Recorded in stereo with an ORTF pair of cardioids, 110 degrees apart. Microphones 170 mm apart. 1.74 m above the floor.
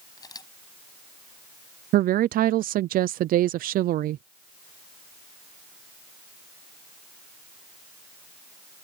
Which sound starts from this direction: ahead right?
A woman speaking, at 1.9 s.